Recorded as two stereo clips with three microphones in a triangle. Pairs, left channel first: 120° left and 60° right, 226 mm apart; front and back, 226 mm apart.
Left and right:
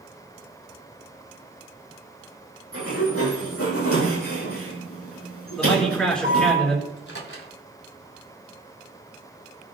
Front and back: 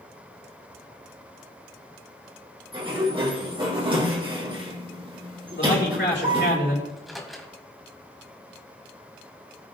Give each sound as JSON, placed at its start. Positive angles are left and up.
{"t": 2.7, "sound": "a sliding door", "azimuth_deg": 115, "distance_m": 4.0}
{"t": 5.6, "sound": "a man speaking", "azimuth_deg": 35, "distance_m": 5.0}
{"t": 6.9, "sound": "a microwave", "azimuth_deg": 90, "distance_m": 2.5}